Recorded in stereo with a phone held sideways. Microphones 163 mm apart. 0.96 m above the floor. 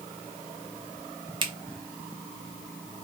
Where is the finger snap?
35° right (ahead or behind), 0.8 m.